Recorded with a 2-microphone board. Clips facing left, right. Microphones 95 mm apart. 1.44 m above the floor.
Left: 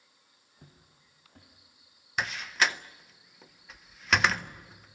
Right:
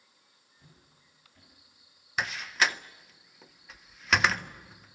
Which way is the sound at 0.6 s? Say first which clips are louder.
Left 3 dB; 50° left (ahead or behind).